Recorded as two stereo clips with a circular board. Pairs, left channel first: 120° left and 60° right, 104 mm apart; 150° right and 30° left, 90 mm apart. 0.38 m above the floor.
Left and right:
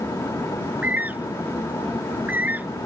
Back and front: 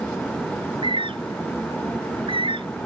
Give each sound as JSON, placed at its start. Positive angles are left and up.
{"t": 0.6, "sound": "a bird", "azimuth_deg": 15}